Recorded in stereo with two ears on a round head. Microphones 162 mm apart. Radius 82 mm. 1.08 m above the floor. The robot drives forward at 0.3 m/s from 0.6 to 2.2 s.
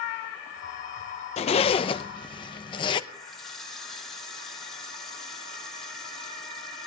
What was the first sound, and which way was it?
A zipper, 35° left (ahead or behind).